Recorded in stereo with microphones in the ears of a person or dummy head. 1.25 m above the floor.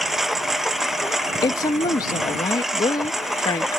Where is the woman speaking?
25° left (ahead or behind).